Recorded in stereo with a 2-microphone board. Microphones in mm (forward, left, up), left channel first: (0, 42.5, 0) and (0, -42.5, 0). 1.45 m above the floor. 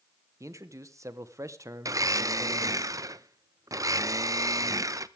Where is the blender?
40° right (ahead or behind), 0.6 m.